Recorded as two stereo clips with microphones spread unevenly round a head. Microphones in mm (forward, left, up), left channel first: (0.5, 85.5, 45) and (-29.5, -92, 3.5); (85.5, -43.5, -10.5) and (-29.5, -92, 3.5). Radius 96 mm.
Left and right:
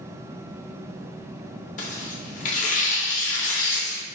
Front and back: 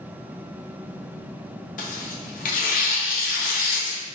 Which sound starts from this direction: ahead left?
Tearing paper, at 1.8 s.